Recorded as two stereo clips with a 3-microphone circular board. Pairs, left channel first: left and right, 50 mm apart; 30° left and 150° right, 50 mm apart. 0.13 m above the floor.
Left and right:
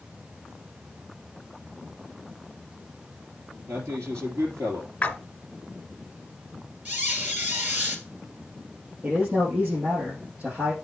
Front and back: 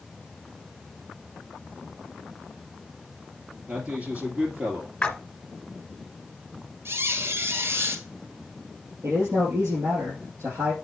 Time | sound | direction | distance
3.7 | a man speaking | 90° right | 3 m
5.0 | a splash | 70° left | 1.1 m
6.8 | a squeak | 140° right | 1.8 m
9.0 | a man speaking | 145° right | 5 m